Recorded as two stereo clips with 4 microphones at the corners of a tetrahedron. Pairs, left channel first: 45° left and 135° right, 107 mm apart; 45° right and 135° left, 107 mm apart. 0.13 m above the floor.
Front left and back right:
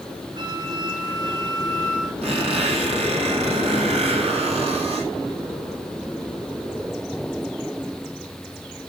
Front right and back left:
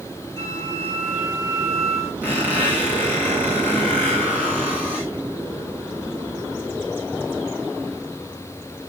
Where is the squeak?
150° right, 3.5 m.